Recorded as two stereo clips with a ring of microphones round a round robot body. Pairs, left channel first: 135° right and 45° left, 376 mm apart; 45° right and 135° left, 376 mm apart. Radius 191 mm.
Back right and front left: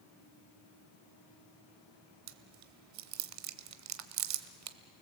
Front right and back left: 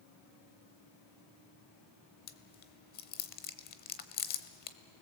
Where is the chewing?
15° left, 0.8 m.